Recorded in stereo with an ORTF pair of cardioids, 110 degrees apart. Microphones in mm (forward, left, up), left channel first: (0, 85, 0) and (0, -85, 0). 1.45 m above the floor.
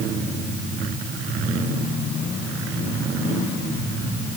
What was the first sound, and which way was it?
Only background noise.